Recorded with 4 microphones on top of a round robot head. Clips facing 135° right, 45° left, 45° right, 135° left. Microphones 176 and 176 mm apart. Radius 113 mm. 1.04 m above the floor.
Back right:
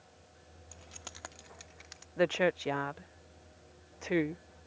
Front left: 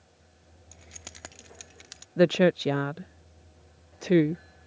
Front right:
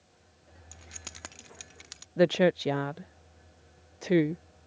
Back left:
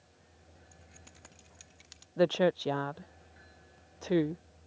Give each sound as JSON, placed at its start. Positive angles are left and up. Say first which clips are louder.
{"t": 0.7, "sound": "keys jangling", "louder": "front left 2 dB, front right 5 dB", "azimuth_deg": -40}
{"t": 2.2, "sound": "a woman speaking", "louder": "front left 8 dB, front right 3 dB", "azimuth_deg": 25}